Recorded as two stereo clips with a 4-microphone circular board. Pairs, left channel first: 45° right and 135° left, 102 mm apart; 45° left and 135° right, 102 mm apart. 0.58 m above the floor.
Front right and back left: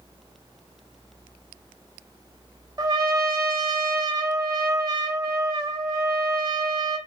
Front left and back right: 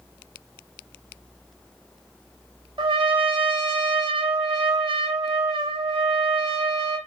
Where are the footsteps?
No footsteps in this recording.